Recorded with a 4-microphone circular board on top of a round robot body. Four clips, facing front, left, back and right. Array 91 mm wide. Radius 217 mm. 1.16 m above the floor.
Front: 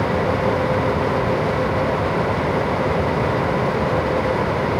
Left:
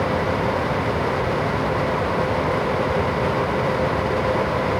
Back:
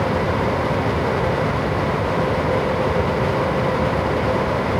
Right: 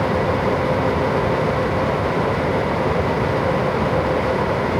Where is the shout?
No shout in this recording.